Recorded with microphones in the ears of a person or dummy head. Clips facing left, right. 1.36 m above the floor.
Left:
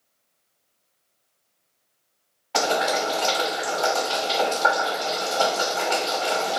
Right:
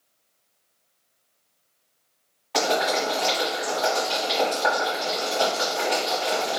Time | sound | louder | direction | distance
2.5 | boiling | even | 10° left (ahead or behind) | 1.6 m